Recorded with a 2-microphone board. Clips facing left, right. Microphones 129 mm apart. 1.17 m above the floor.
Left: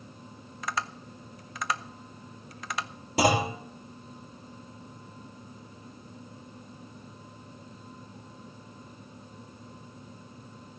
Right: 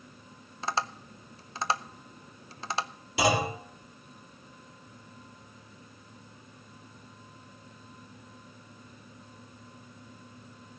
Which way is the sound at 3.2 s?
40° left (ahead or behind).